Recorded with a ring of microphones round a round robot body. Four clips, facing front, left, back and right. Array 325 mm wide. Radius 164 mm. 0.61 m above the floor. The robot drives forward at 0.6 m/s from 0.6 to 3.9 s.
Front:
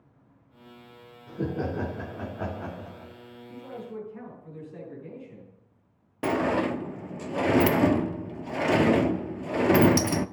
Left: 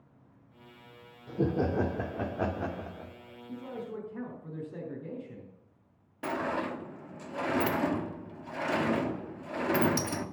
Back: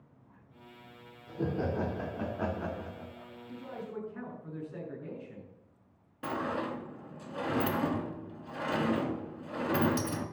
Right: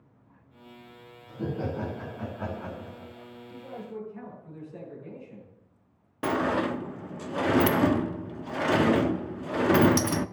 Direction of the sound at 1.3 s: 70° left.